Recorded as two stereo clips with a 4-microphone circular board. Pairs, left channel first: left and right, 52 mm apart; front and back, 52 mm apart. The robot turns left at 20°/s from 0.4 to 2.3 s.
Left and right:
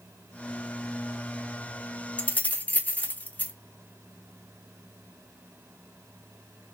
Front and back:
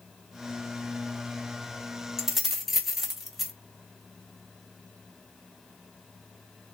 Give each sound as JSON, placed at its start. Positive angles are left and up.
{"t": 2.2, "sound": "keys jangling", "azimuth_deg": 105, "distance_m": 0.7}